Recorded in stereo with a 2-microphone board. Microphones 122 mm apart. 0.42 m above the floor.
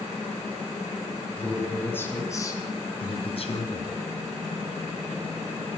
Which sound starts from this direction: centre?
A man speaking, at 1.4 s.